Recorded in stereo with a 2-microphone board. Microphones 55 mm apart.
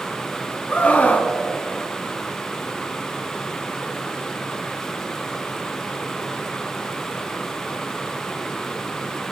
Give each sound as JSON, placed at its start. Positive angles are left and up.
{"t": 0.7, "sound": "a scream", "side_deg": 30, "distance_m": 1.8}